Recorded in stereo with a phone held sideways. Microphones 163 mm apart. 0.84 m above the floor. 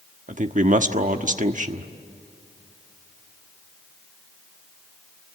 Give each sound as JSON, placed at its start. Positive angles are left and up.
{"t": 0.3, "sound": "a man speaking", "side_deg": -50, "distance_m": 1.2}